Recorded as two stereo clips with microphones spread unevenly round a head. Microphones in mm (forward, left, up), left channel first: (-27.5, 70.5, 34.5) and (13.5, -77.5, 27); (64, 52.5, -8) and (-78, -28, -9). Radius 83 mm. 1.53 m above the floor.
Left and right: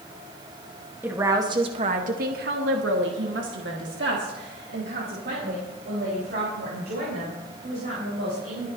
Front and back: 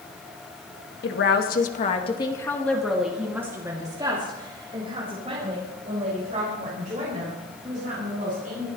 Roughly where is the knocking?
I don't hear knocking.